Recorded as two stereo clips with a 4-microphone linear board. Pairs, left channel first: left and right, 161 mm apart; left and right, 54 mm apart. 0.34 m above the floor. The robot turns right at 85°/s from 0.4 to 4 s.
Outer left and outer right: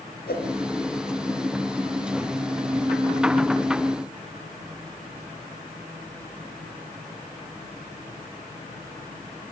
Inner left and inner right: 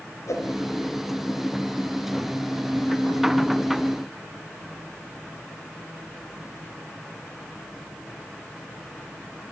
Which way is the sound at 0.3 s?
80° left.